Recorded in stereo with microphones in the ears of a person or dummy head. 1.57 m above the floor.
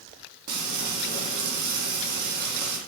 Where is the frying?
50° right (ahead or behind), 1.0 m.